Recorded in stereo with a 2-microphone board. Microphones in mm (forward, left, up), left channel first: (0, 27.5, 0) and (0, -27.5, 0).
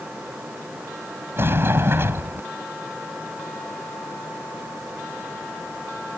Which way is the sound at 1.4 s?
45° right (ahead or behind).